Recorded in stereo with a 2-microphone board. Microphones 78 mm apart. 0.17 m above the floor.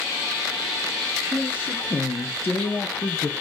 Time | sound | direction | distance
1.3 | a woman speaking | 25° left (ahead or behind) | 5 m